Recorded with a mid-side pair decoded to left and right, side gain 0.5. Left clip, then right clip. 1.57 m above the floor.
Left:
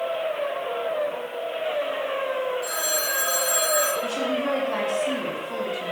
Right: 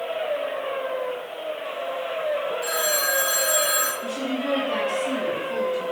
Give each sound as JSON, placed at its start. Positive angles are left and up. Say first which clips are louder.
{"t": 2.6, "sound": "a phone ringing", "louder": "right 2 dB", "azimuth_deg": -40, "distance_m": 1.9}
{"t": 4.0, "sound": "a woman speaking", "louder": "left 2 dB", "azimuth_deg": 0, "distance_m": 4.5}